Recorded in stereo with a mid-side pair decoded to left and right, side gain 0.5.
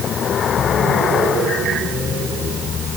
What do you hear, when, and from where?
Only background noise.